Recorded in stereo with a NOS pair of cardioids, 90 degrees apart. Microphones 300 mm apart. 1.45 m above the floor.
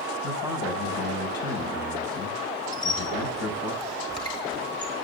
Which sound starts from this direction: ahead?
A squeak, at 2.7 s.